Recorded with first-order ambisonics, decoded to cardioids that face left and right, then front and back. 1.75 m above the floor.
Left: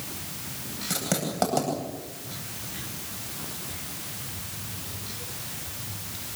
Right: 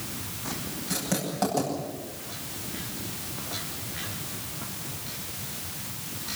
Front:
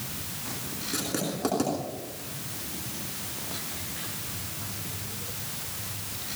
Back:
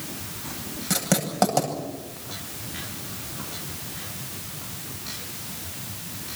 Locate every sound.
0.9 s writing: 165° left, 9 m